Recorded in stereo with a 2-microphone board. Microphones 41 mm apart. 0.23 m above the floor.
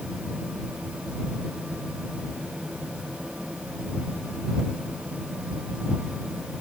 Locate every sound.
Only background noise.